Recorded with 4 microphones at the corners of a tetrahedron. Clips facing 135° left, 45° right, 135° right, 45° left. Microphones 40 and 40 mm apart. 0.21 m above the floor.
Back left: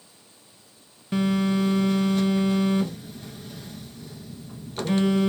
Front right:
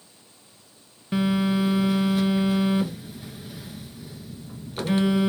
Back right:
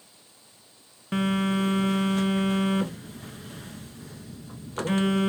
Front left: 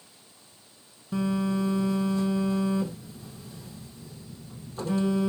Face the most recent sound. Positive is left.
turn(degrees=-120)